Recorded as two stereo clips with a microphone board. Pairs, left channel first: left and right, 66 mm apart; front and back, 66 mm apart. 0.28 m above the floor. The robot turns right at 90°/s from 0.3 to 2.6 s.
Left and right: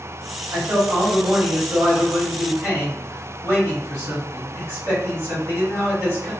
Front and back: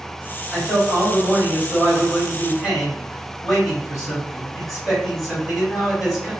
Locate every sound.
0.5 s a man speaking: 85° right, 1.8 m; by 6.3 s 100° left, 1.8 m